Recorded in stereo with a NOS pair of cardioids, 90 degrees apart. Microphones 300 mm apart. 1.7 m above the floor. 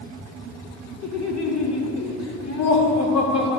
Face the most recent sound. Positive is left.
turn(degrees=60)